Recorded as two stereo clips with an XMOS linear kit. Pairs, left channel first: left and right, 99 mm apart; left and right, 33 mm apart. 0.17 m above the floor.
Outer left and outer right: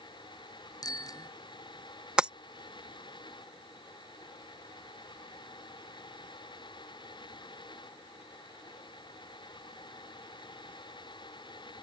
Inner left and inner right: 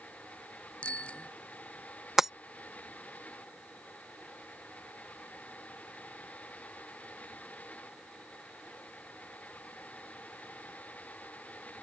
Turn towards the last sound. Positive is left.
turn(degrees=-10)  # may be behind; listen again after turning